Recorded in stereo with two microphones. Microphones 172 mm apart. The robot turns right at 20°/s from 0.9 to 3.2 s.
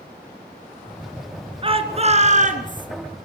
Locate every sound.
1.6 s a shout: 30° right (ahead or behind), 3 m; by 2.9 s 55° right (ahead or behind), 3 m